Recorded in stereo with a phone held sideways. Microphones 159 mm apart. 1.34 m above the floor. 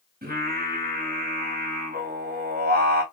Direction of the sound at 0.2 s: 75° right (ahead or behind).